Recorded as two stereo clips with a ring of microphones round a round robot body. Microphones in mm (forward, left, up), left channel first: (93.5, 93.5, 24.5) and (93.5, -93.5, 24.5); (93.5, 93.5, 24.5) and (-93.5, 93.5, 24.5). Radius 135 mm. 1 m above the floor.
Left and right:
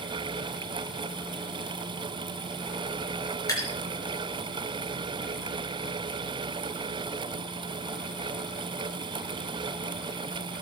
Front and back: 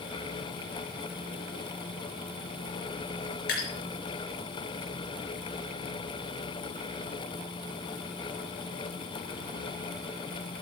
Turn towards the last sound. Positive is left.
turn(degrees=20)